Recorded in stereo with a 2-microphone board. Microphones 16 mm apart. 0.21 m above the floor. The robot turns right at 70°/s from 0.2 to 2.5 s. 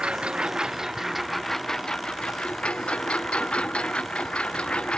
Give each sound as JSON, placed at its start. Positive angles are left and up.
{"t": 0.0, "sound": "a lawn mower", "azimuth_deg": -80}